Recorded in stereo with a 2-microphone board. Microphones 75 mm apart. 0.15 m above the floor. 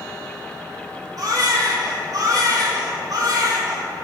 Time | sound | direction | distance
1.2 | a baby crying | 50° right (ahead or behind) | 2.5 m